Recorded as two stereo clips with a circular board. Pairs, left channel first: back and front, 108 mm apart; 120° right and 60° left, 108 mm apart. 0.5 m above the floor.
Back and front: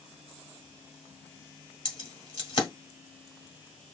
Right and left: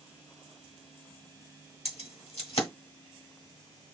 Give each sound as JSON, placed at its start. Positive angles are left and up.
{"t": 1.9, "sound": "keys jangling", "azimuth_deg": -135, "distance_m": 1.8}